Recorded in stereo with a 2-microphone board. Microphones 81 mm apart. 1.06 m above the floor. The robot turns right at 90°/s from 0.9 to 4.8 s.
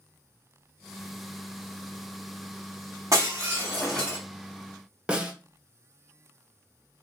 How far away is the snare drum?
About 0.5 m.